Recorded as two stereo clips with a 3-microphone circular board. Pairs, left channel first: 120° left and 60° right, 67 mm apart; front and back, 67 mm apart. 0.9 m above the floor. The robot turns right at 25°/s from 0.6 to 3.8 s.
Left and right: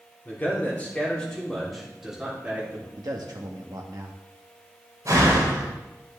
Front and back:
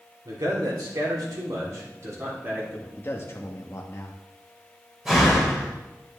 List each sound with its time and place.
0.2 s a man speaking: straight behind, 3 m; by 2.9 s 120° right, 3 m
3.0 s a man speaking: 55° right, 1.0 m; by 4.2 s 35° right, 1.0 m
5.0 s a door slam: 95° right, 3 m